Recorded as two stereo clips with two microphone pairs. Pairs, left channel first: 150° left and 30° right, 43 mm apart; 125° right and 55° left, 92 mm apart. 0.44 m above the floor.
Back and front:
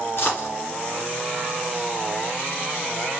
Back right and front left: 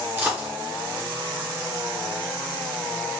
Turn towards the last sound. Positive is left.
turn(degrees=120)